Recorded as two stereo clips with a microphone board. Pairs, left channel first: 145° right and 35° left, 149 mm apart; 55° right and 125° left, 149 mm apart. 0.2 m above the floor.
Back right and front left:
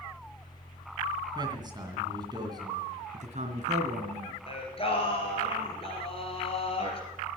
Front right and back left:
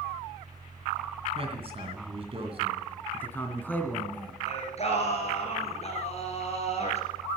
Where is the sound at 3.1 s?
20° left, 1.9 m.